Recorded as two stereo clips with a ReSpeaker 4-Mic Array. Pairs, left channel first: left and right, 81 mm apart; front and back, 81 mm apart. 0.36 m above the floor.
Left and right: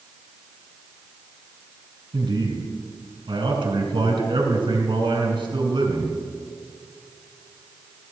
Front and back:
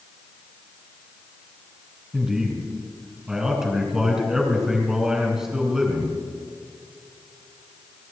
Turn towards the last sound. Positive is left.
turn(degrees=-95)